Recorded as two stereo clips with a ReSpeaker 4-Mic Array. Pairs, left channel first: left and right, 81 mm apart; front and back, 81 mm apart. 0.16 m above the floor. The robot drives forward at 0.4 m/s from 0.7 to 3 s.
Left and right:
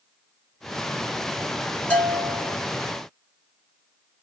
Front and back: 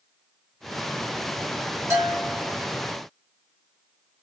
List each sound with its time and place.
1.9 s a bell: 150° left, 2.0 m; by 2.6 s 155° left, 2 m